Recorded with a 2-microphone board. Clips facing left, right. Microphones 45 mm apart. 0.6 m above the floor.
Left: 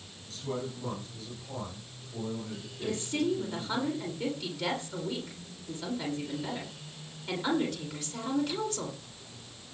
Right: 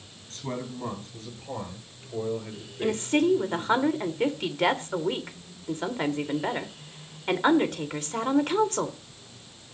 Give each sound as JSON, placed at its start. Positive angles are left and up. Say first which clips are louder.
{"t": 0.3, "sound": "a man speaking", "louder": "right 1 dB", "side_deg": -50, "distance_m": 9.0}
{"t": 2.8, "sound": "a woman speaking", "louder": "right 7 dB", "side_deg": -50, "distance_m": 2.0}